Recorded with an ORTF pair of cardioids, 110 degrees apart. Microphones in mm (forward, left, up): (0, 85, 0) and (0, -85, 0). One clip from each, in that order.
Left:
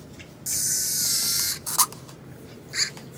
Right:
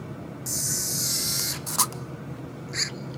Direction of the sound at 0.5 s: 10° left.